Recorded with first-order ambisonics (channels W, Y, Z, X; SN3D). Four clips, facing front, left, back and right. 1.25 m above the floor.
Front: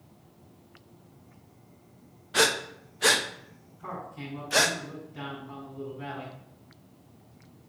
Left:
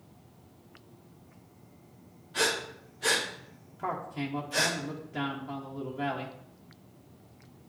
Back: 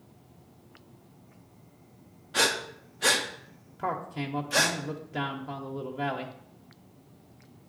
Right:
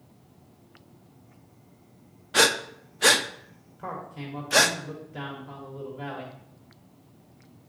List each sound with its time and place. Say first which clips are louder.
2.3 s breathing: right 8 dB, front 2 dB; 75° right, 0.6 m
3.8 s a man speaking: left 3 dB, back 6 dB; 170° left, 1.1 m